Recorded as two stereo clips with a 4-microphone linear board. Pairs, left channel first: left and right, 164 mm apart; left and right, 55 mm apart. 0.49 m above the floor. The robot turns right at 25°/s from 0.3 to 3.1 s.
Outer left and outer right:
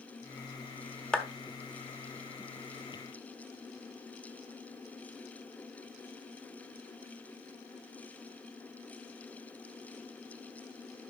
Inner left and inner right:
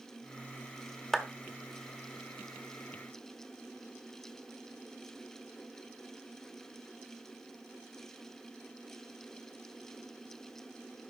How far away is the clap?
About 1.1 m.